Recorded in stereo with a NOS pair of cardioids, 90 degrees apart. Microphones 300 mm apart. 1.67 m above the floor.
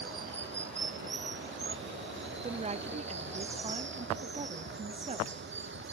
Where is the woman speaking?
20° right.